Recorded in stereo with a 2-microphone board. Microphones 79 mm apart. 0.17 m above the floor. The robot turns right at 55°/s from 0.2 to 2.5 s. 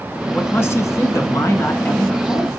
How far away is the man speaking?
About 1.5 m.